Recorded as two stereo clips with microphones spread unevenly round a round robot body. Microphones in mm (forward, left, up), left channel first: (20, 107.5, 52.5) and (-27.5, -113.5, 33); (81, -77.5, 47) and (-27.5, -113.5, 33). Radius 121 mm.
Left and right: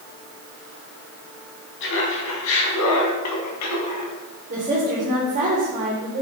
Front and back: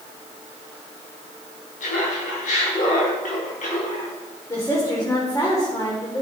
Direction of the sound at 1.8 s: 35° left.